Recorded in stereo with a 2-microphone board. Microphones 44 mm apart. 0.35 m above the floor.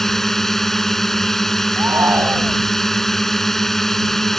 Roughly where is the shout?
Right.